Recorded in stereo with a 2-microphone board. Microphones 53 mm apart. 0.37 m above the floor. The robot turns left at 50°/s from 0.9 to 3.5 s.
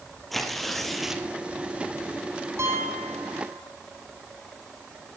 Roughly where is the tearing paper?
Centre.